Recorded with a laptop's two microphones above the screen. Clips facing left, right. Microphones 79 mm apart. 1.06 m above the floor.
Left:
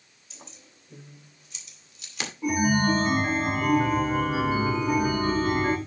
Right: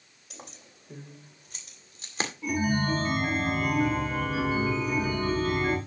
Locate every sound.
0.3 s keys jangling: 65° right (ahead or behind), 3.5 m; by 2.3 s 35° right (ahead or behind), 2 m
2.4 s a chime: 20° left (ahead or behind), 2.5 m